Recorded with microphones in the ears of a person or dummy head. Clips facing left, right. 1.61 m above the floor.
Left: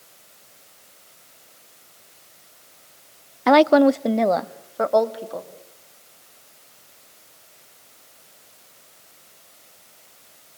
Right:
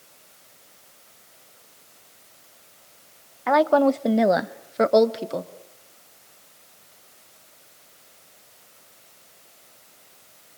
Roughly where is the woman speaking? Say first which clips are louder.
Left 4 dB; left.